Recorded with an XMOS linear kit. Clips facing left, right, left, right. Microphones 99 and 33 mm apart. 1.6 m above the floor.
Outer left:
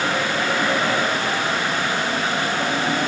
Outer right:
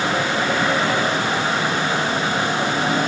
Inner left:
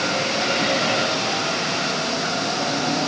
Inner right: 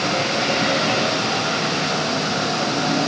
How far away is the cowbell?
I don't hear a cowbell.